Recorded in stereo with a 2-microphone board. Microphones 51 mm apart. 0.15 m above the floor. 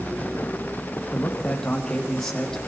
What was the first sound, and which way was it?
A man speaking, 10° left (ahead or behind).